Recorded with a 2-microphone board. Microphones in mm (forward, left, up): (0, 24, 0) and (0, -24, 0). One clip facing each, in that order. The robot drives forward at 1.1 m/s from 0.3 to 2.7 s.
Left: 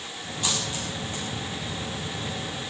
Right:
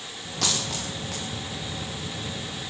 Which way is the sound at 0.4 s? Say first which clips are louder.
Right 1 dB; 90° right.